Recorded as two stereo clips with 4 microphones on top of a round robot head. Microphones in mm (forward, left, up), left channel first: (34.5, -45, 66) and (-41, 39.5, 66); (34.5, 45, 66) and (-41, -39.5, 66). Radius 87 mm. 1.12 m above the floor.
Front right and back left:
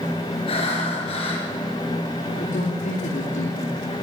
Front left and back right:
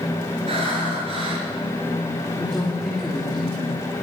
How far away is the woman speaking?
About 3 m.